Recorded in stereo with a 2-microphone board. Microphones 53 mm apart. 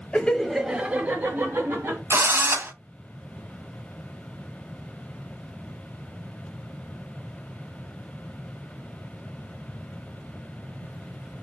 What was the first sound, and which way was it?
Laughter, 25° left (ahead or behind).